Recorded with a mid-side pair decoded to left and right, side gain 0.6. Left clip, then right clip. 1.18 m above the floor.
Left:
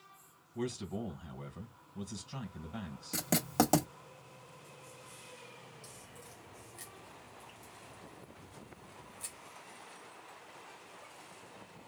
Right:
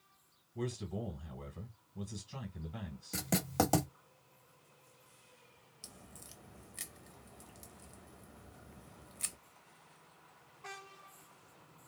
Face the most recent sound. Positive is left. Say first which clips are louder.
# left 3 dB
turn(degrees=-40)